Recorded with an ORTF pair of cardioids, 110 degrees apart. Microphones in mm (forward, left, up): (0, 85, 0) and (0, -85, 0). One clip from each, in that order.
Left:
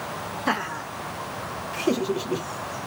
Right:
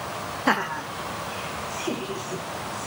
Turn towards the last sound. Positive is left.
turn(degrees=60)